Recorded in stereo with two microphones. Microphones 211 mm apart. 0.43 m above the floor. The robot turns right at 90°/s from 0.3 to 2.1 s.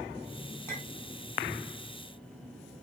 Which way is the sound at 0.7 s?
10° left (ahead or behind).